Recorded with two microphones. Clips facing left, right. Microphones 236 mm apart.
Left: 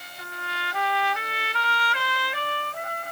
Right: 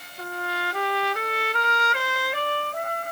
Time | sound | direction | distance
0.2 | a trumpet | 50° right (ahead or behind) | ?